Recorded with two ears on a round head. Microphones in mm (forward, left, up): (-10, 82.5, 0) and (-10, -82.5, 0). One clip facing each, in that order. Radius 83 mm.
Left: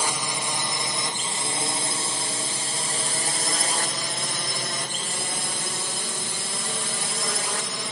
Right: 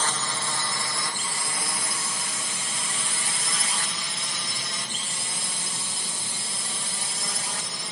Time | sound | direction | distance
0.0 | a drone | 10° left (ahead or behind) | ?